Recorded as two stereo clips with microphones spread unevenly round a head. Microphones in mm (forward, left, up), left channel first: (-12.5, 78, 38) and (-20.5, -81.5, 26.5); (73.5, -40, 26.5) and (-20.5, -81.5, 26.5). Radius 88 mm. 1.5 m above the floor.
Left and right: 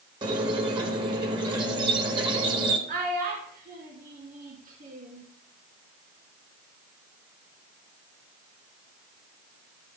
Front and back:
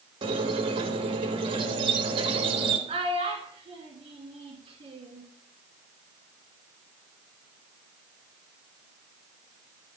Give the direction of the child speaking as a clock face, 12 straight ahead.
4 o'clock.